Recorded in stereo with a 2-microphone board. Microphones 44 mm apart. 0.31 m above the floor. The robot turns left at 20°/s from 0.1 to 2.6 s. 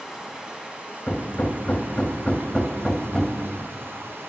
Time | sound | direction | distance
0.0 | running water | 20° right | 1.2 m
1.1 | hammering | 35° left (ahead or behind) | 0.7 m